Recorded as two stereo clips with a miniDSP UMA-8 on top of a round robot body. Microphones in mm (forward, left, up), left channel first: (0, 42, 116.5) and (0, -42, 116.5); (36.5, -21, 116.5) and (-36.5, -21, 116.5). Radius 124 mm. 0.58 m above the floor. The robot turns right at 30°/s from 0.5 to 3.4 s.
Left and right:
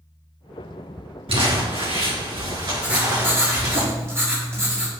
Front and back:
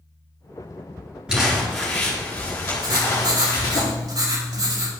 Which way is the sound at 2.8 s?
165° right.